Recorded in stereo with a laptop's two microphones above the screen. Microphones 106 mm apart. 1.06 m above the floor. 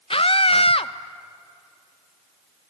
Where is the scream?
60° left (ahead or behind), 0.8 m.